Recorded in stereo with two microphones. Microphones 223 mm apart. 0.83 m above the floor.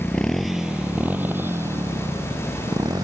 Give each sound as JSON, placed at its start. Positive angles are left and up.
{"t": 0.0, "sound": "a motorcycle", "side_deg": 5}